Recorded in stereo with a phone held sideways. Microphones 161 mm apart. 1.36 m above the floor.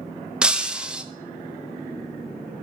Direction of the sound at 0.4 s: 5° right (ahead or behind).